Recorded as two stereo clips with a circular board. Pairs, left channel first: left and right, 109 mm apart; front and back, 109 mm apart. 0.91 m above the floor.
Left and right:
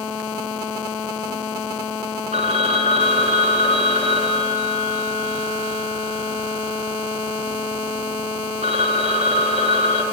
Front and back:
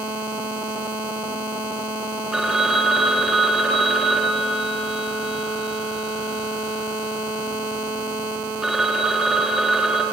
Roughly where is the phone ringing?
Right.